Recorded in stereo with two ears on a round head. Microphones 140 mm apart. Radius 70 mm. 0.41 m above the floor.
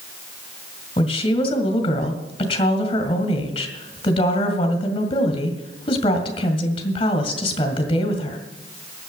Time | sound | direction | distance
1.0 | a woman speaking | 35° left (ahead or behind) | 2 m